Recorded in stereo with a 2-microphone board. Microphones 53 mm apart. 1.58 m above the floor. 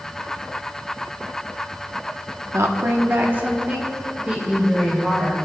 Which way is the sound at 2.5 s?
70° right (ahead or behind).